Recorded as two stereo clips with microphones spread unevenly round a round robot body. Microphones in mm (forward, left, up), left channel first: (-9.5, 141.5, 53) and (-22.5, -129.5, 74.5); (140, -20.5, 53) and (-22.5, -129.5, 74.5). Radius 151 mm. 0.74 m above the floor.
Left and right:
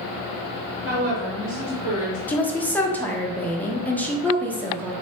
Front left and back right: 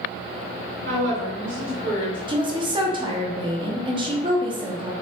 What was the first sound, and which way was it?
A woman speaking, 155° right.